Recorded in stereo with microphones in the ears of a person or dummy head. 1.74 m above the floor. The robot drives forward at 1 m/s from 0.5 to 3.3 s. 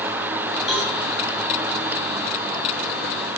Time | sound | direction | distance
0.7 | a cowbell | centre (ahead or behind) | 5.5 m